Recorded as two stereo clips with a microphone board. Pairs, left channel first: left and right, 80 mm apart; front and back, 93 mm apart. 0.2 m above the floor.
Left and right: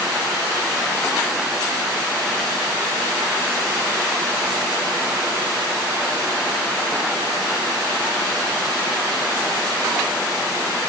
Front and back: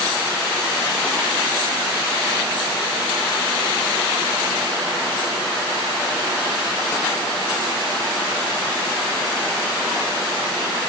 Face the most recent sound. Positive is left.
No sound to turn to.